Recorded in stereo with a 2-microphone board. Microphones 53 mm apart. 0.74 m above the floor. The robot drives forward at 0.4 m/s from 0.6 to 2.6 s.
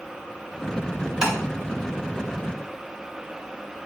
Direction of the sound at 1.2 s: 15° right (ahead or behind).